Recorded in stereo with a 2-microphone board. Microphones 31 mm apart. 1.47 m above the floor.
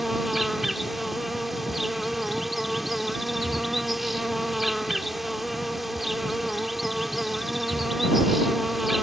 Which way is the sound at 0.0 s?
5° right (ahead or behind).